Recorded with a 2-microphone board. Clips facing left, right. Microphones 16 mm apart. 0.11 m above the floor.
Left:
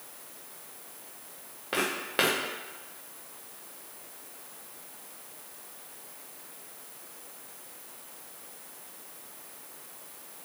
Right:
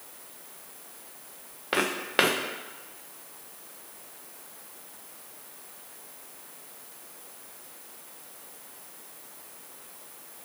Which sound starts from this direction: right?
Footsteps, at 1.7 s.